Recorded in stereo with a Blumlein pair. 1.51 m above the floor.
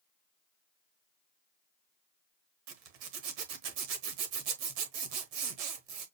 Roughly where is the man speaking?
I don't hear a man speaking.